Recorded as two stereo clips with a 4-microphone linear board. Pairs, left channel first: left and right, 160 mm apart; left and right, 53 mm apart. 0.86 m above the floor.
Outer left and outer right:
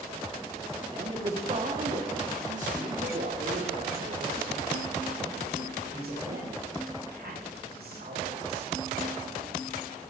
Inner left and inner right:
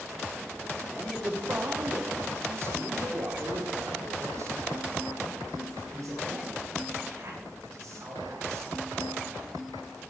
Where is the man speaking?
30° right (ahead or behind), 1.6 m; by 8.7 s 65° right (ahead or behind), 6 m.